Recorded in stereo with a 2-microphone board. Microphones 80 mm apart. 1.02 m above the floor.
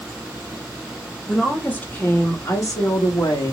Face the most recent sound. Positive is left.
turn(degrees=60)  # may be behind; listen again after turning